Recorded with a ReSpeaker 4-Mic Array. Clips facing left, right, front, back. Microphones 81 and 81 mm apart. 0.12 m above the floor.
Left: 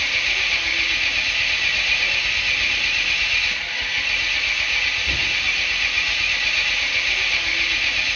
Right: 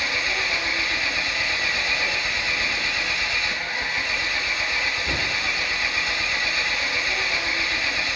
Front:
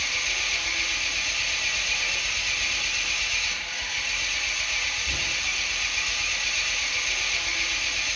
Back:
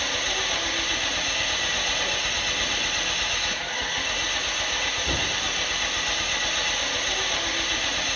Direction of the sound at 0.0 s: 155° right.